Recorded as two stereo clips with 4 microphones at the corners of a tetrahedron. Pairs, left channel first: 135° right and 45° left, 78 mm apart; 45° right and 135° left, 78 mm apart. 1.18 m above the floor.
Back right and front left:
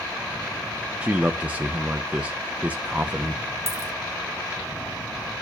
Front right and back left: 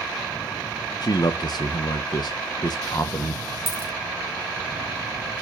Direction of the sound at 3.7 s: Straight behind.